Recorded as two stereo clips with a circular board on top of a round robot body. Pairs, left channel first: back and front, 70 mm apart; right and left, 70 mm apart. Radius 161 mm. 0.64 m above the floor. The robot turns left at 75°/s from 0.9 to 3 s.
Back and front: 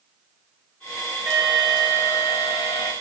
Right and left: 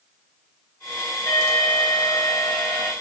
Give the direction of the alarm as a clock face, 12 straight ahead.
2 o'clock.